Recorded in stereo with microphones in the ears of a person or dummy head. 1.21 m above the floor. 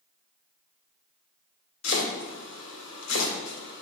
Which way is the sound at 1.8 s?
80° left.